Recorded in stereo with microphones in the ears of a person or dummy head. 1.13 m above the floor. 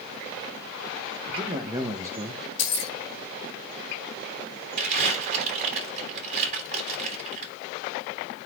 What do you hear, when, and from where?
1.3 s a man speaking: 35° right (ahead or behind), 1.4 m; by 2.5 s 5° right (ahead or behind), 0.8 m
2.6 s keys jangling: 70° left (ahead or behind), 1.2 m
4.8 s crumpling: 35° right (ahead or behind), 5.5 m